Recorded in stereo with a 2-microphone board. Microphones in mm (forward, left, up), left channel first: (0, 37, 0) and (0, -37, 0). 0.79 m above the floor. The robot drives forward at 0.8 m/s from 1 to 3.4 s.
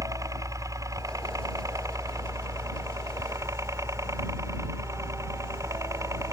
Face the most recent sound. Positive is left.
turn(degrees=-45)  # may be behind; listen again after turning